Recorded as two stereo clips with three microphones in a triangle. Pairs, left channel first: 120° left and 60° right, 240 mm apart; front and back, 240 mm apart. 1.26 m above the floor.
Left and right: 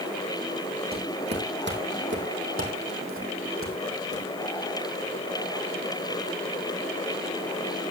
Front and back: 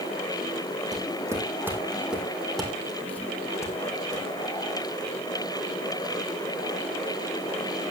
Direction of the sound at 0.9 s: 105° right.